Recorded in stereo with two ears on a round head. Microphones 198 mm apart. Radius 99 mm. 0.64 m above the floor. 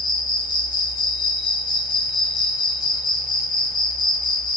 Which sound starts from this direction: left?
An insect, at 0.0 s.